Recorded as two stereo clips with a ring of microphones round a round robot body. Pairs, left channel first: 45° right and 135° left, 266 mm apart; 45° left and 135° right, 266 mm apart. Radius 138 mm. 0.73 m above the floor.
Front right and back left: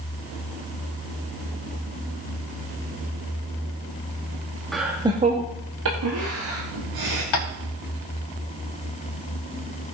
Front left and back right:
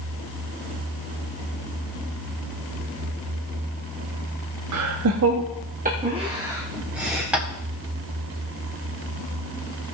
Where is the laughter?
135° right, 0.9 m; by 7.2 s 135° left, 1.7 m.